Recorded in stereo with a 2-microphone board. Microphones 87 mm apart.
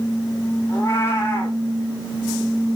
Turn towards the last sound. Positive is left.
turn(degrees=30)  # may be behind; listen again after turning